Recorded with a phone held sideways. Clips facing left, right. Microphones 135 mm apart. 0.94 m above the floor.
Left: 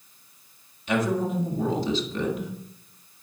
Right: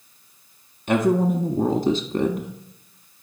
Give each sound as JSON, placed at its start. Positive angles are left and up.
{"t": 0.9, "sound": "a woman speaking", "side_deg": -50, "distance_m": 1.5}